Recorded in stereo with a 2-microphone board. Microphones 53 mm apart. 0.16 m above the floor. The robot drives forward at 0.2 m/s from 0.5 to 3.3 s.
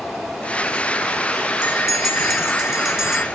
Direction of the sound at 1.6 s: 10° right (ahead or behind).